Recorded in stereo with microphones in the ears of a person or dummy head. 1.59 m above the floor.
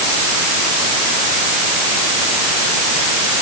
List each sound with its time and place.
Only background noise.